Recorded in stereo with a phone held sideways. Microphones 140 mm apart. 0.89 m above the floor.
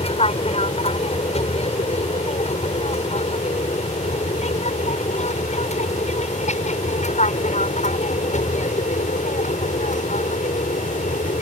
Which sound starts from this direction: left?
An aircraft, at 0.0 s.